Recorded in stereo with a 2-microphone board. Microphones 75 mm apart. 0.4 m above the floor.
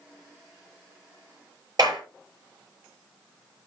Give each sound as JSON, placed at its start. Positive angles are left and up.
{"t": 1.8, "sound": "a clap", "side_deg": -60, "distance_m": 6.0}